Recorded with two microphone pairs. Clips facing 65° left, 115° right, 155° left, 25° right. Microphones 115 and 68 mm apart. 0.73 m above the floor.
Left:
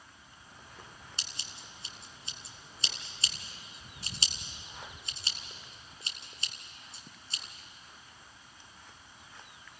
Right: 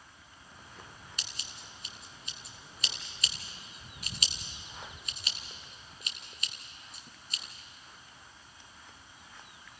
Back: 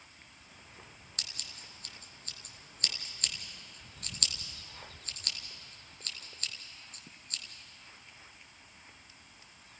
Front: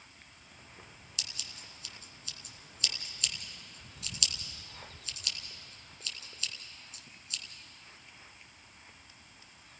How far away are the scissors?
About 1.6 m.